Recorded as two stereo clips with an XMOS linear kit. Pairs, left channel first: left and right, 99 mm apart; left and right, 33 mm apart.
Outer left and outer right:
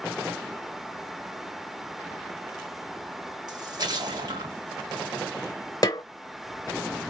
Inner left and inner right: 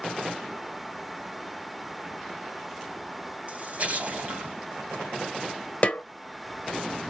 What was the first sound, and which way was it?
A splash, 45° right (ahead or behind).